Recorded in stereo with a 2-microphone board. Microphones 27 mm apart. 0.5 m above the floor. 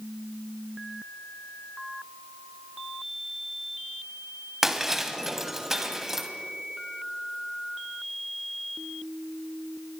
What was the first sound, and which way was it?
Breaking glass, 15° right (ahead or behind).